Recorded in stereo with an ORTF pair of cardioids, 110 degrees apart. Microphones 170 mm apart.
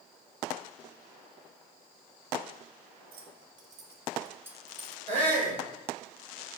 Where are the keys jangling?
65° right, 1.9 m; by 5.0 s 5° left, 1.8 m.